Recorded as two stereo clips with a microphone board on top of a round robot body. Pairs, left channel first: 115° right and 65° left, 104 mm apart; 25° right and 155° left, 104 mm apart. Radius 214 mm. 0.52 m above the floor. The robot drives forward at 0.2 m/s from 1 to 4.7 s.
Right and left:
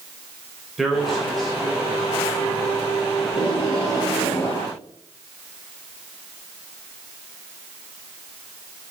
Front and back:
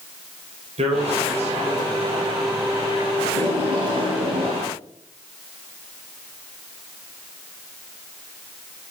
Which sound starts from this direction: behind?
Tape being pulled, at 3.2 s.